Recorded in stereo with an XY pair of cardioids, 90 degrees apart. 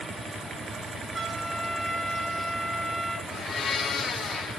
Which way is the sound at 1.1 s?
35° right.